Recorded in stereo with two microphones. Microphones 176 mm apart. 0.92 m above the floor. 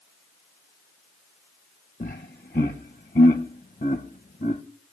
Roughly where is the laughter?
Left.